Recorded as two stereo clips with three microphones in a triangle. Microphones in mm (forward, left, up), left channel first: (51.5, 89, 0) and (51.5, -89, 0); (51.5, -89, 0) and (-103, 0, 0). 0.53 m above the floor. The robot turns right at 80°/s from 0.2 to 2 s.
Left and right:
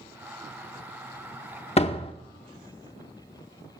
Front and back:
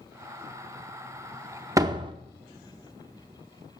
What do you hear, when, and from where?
1.8 s a door slam: 95° left, 0.6 m; by 2.1 s 115° left, 0.6 m